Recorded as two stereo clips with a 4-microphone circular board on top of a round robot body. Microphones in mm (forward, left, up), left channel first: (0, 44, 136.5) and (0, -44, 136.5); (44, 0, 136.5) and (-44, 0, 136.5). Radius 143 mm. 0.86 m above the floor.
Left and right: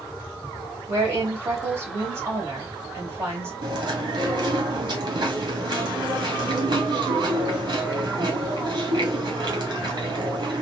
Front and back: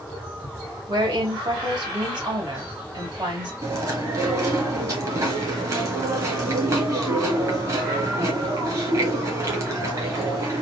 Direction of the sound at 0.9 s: 150° right.